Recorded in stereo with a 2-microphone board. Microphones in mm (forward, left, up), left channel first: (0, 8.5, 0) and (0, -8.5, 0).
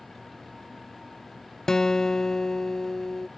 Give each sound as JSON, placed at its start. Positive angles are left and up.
{"t": 1.7, "sound": "a guitar", "side_deg": 30}